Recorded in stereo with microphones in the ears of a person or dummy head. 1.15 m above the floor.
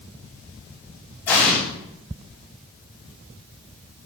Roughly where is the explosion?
Centre.